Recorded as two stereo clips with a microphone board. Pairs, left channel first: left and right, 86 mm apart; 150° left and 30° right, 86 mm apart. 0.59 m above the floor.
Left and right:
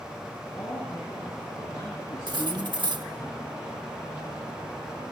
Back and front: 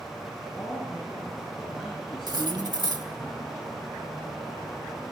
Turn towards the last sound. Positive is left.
turn(degrees=-60)